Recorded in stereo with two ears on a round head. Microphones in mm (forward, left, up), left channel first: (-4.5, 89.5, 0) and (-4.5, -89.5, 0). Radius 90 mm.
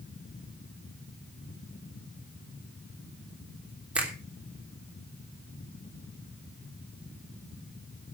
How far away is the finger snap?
About 3.5 m.